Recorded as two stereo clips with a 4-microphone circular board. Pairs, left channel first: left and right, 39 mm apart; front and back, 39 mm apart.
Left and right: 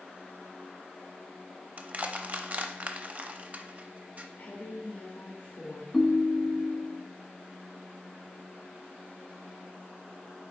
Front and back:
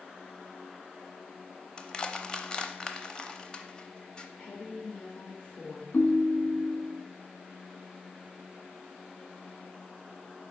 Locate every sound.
1.8 s crushing: 60° right, 0.6 m
4.4 s a woman speaking: 55° left, 2.5 m
5.9 s a ringtone: 5° right, 0.9 m